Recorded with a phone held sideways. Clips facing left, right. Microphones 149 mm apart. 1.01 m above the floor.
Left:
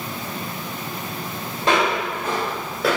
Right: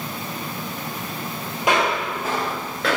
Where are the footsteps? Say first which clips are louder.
Left 1 dB; 15° right (ahead or behind), 1.7 m; by 3.0 s 10° left (ahead or behind), 1.0 m.